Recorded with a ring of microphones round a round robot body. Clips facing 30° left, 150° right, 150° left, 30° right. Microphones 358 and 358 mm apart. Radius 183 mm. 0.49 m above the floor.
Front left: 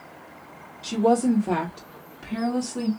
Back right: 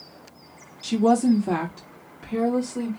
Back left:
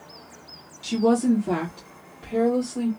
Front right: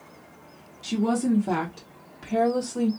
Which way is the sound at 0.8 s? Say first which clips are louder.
Back right 1 dB, back left 4 dB; 140° right.